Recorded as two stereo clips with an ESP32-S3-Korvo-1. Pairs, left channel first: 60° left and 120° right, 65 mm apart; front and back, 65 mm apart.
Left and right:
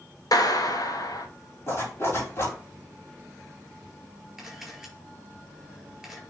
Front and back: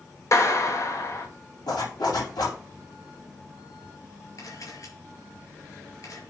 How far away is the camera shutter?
About 4.5 m.